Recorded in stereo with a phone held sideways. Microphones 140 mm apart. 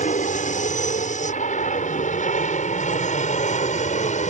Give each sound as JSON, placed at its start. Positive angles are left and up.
{"t": 0.0, "sound": "an aircraft", "side_deg": 65}